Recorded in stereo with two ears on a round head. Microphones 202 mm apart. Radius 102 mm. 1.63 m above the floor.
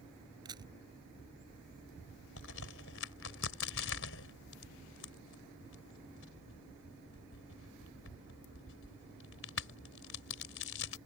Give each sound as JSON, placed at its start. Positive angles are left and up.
{"t": 0.5, "sound": "a camera shutter", "side_deg": -20}
{"t": 2.4, "sound": "a crack", "side_deg": 60}